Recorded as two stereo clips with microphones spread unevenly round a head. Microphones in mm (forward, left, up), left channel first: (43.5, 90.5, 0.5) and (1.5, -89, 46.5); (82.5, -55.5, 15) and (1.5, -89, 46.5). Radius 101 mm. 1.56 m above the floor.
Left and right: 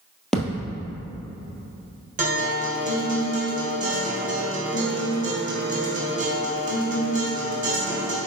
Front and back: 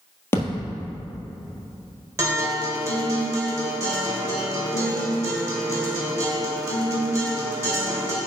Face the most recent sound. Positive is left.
turn(degrees=-135)